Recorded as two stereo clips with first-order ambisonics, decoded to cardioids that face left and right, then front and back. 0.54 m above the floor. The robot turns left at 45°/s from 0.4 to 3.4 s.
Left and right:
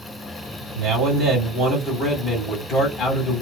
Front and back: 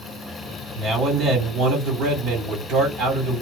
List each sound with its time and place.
0.8 s a man speaking: 115° right, 1.4 m; by 3.4 s 125° left, 1.4 m